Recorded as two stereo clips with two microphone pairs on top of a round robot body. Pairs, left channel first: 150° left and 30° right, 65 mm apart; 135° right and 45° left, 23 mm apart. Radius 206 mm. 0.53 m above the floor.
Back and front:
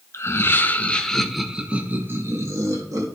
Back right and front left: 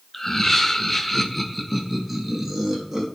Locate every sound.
0.1 s laughter: 170° left, 1.2 m; by 3.1 s 35° right, 1.4 m